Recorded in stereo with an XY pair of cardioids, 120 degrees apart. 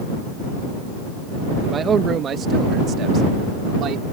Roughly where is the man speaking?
Ahead right.